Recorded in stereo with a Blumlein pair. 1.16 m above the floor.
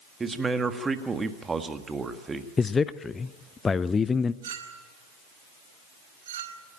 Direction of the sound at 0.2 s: 15° right.